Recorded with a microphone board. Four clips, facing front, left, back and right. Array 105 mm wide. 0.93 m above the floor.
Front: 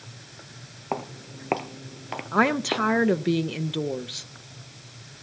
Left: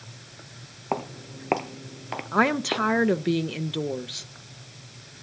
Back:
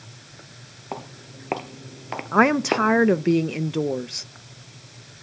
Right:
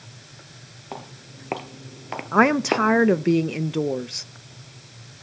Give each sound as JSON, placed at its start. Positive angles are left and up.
{"t": 0.9, "sound": "footsteps", "azimuth_deg": 65, "distance_m": 1.1}
{"t": 2.3, "sound": "a woman speaking", "azimuth_deg": -130, "distance_m": 0.5}